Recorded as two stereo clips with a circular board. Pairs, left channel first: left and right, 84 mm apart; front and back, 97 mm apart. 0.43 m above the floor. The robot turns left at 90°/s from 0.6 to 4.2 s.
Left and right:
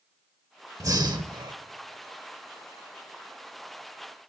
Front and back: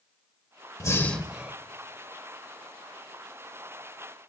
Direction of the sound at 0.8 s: 45° right.